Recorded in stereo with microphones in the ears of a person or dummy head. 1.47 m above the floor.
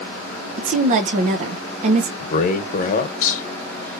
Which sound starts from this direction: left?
A man speaking, at 2.2 s.